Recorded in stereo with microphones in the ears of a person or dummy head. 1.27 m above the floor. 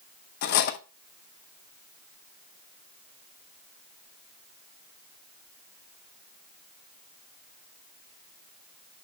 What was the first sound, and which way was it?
Cutlery clinking, 55° left (ahead or behind).